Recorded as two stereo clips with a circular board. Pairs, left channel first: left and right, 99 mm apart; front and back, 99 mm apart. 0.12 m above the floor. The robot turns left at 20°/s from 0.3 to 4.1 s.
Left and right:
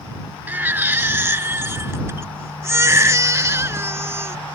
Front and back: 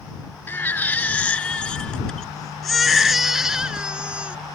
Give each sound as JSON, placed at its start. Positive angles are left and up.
{"t": 0.5, "sound": "a baby crying", "azimuth_deg": -40}